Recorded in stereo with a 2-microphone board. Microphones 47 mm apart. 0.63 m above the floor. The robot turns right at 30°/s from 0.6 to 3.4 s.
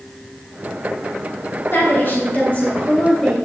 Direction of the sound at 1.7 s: 120° left.